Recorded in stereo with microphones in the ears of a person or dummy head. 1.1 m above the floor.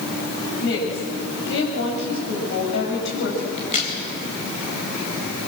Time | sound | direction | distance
0.6 | a woman speaking | 75° left (ahead or behind) | 7 m
3.6 | a crack | 45° left (ahead or behind) | 4 m